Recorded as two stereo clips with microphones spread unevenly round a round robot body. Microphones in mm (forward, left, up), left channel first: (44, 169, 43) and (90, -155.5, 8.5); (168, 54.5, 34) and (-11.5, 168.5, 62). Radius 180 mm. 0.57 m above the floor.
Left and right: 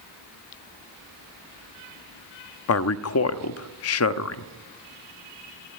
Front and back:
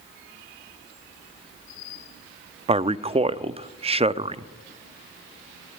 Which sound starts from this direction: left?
A man speaking, at 2.7 s.